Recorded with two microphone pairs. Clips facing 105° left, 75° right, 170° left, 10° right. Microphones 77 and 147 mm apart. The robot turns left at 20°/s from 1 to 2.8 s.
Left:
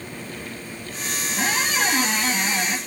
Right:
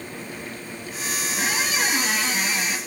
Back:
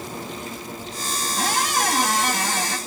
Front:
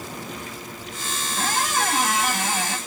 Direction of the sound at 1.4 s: 95° left.